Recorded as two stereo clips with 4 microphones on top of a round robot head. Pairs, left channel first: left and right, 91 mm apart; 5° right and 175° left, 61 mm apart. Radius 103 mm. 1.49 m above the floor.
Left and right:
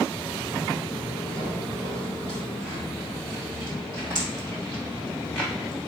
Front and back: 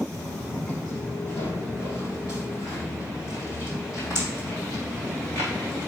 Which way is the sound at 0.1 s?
40° right.